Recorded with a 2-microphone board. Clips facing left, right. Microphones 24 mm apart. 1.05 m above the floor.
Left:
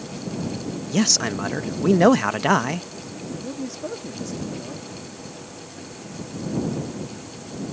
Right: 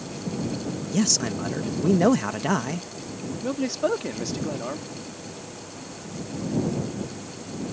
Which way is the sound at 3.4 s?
60° right (ahead or behind).